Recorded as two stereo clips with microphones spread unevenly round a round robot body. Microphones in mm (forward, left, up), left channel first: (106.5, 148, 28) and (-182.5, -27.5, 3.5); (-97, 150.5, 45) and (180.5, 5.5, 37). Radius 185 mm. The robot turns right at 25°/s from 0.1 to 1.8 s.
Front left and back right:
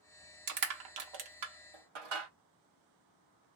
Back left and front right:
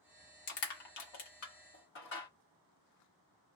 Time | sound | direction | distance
0.5 | crushing | straight behind | 1.0 m